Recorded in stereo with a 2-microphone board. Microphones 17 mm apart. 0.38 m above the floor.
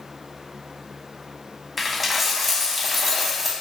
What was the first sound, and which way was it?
A dropped coin, 5° right (ahead or behind).